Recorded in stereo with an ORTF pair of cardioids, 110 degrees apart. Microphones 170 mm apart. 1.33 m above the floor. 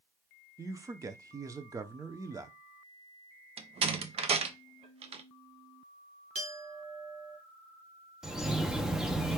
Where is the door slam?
35° right, 0.7 m.